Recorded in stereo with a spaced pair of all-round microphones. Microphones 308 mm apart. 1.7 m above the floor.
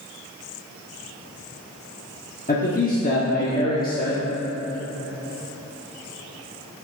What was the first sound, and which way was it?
A man speaking, 30° left (ahead or behind).